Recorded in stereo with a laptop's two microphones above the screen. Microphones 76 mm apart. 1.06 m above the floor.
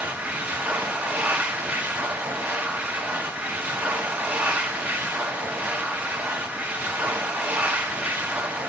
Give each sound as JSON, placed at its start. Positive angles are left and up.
{"t": 0.0, "sound": "a machine running", "side_deg": -20, "distance_m": 1.0}